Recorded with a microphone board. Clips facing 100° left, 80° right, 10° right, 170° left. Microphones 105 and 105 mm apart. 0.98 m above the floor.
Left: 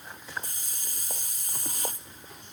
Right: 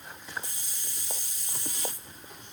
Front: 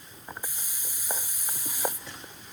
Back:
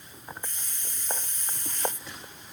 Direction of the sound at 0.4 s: 65° left.